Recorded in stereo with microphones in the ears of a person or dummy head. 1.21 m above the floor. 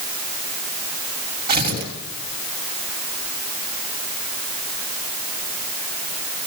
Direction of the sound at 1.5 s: 45° right (ahead or behind).